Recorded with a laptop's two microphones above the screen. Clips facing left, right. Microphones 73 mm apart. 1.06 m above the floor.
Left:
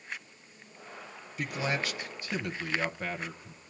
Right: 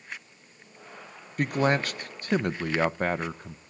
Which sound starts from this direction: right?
A man speaking, at 1.4 s.